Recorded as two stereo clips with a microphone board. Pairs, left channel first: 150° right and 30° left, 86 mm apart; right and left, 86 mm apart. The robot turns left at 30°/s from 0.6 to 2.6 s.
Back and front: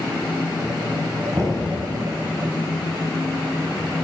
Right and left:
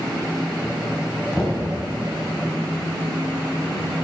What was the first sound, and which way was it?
Knocking, 10° right.